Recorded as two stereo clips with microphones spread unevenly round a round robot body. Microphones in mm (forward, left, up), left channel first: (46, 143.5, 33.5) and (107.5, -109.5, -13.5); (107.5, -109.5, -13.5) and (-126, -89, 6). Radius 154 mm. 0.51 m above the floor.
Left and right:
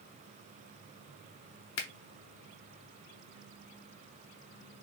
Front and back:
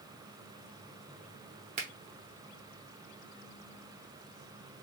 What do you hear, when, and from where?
1.8 s a finger snap: 120° left, 0.7 m